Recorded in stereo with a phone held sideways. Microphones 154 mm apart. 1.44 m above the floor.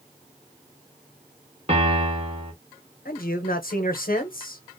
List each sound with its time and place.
1.7 s a piano: 40° right (ahead or behind), 1.2 m
3.0 s a man speaking: 70° left (ahead or behind), 0.8 m